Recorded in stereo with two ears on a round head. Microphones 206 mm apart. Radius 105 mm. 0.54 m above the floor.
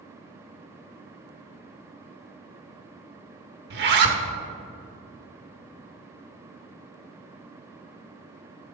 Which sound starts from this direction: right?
A zipper, at 3.7 s.